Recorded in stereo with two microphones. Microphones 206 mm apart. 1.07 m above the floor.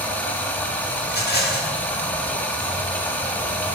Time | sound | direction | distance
0.0 | running water | 10° left (ahead or behind) | 1.4 m
1.0 | a rattle | 50° left (ahead or behind) | 1.9 m